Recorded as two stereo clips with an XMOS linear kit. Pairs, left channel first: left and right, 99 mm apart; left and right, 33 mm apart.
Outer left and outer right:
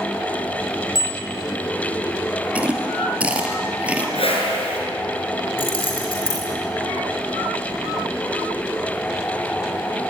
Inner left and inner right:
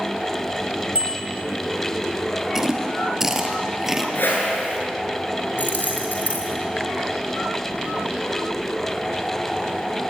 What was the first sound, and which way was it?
A bicycle bell, 35° right (ahead or behind).